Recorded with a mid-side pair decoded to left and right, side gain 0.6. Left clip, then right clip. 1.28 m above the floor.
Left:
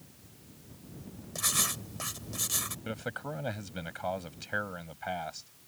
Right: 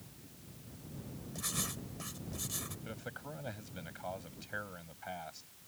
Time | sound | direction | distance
1.4 | writing | 45° left | ?
2.9 | a man speaking | 40° left | ?